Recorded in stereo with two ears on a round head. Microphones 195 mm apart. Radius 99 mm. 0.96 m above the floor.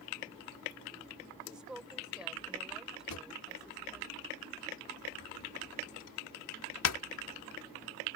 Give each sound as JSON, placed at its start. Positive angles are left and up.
{"t": 1.5, "sound": "a woman speaking", "side_deg": -5}
{"t": 3.1, "sound": "a drawer", "side_deg": 85}